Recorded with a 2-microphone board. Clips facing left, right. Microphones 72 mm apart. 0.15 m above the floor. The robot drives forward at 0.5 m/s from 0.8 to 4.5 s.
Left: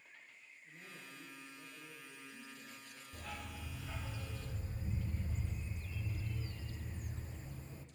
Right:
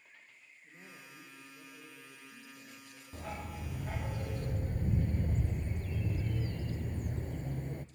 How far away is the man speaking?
About 8.5 m.